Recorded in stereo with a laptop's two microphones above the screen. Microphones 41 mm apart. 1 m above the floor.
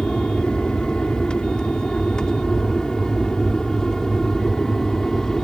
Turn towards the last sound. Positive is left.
turn(degrees=15)  # may be behind; listen again after turning